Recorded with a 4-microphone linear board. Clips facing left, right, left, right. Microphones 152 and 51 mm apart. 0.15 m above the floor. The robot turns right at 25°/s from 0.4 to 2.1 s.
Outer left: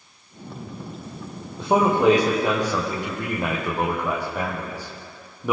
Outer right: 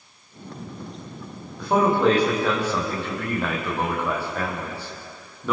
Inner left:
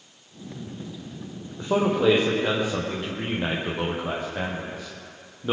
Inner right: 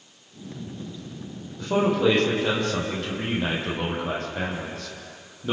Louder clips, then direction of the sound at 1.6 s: Outer left 1 dB, even; 25° left (ahead or behind).